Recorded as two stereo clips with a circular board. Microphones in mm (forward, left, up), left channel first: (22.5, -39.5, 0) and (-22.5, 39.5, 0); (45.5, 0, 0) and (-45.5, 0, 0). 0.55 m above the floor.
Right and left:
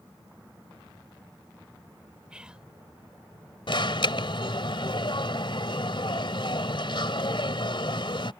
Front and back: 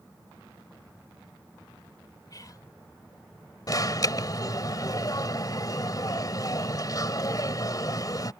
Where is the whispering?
40° left.